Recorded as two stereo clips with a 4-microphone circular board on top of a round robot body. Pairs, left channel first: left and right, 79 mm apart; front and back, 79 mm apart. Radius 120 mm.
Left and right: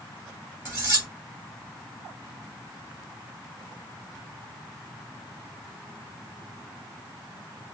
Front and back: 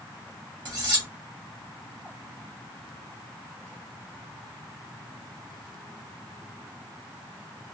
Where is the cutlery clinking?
150° right, 1.6 m.